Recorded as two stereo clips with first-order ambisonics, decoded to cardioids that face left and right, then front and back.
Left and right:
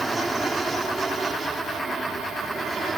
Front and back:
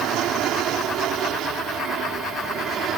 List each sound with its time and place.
0.0 s an aircraft: 165° right; by 3.0 s 155° right